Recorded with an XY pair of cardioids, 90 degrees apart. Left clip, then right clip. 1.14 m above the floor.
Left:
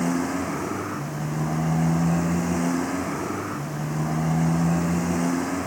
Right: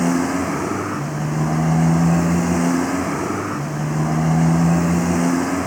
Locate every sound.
0.0 s a motorcycle: 45° right